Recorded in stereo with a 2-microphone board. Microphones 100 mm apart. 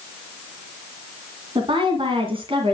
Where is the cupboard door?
No cupboard door in this recording.